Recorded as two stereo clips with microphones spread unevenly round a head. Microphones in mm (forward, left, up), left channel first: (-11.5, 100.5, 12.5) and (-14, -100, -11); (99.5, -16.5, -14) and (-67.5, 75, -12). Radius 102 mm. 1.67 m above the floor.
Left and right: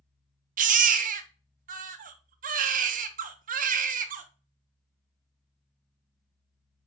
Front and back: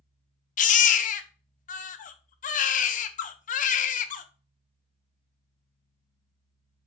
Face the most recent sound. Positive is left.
turn(degrees=-50)